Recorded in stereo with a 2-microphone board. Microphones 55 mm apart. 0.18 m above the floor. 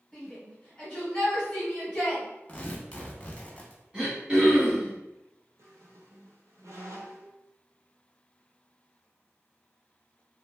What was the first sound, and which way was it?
A shout, 10° left (ahead or behind).